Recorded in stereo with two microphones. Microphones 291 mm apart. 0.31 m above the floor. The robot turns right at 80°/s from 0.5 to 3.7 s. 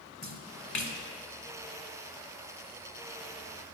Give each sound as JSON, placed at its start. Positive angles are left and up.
{"t": 0.2, "sound": "a splash", "side_deg": 65, "distance_m": 0.8}